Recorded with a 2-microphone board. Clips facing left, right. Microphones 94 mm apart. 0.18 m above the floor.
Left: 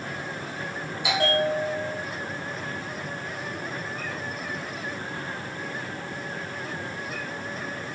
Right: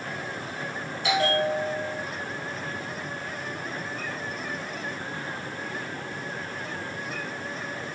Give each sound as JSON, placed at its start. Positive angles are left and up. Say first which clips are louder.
{"t": 1.0, "sound": "a bell", "louder": "even", "side_deg": 10, "distance_m": 5.5}